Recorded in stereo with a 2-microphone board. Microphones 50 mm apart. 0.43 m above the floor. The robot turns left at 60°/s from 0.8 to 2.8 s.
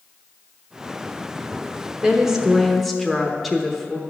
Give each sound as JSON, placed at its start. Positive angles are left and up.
{"t": 2.0, "sound": "a woman speaking", "side_deg": -15, "distance_m": 0.8}